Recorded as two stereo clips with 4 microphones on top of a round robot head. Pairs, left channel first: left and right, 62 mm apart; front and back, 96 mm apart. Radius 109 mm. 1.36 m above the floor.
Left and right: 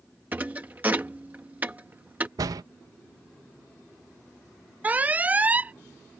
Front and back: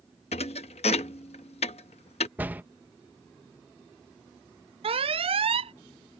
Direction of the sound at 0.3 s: 15° right.